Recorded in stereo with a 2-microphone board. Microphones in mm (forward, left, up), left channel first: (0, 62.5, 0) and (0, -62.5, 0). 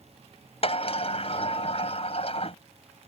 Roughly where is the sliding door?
Left.